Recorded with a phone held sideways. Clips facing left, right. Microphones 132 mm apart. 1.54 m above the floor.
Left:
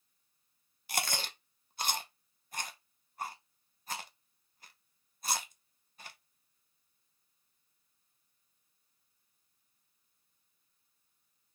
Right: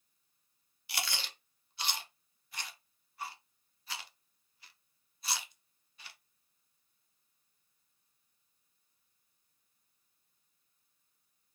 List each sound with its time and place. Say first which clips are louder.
0.9 s chewing: left 4 dB; 45° left (ahead or behind), 0.6 m